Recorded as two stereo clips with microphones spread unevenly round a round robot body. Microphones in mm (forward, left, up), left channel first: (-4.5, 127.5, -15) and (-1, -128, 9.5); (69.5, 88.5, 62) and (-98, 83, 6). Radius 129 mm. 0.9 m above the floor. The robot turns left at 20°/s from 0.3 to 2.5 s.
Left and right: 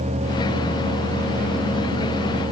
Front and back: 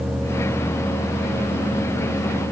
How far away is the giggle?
I don't hear a giggle.